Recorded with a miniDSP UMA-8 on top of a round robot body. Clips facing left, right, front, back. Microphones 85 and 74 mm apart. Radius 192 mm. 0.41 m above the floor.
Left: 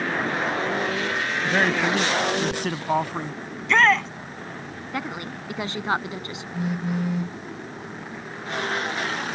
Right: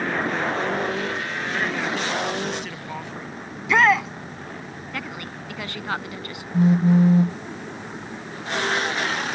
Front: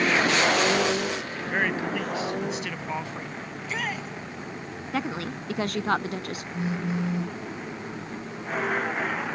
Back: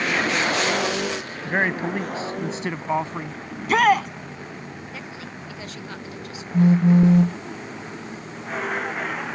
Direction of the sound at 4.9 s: 25° left.